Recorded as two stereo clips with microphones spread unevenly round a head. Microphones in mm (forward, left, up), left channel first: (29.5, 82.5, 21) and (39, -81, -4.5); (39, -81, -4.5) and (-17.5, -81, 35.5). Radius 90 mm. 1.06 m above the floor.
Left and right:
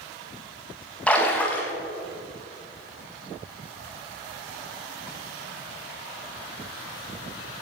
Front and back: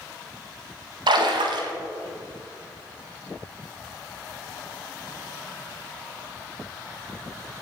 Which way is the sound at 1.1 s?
Straight behind.